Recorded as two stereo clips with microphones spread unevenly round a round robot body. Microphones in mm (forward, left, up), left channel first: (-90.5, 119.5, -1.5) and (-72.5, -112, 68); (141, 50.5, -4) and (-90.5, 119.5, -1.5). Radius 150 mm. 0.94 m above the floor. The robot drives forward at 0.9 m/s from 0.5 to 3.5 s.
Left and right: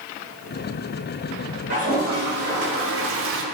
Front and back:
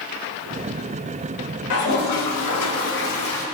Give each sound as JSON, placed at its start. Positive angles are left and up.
{"t": 1.7, "sound": "a toilet flushing", "azimuth_deg": -25, "distance_m": 1.6}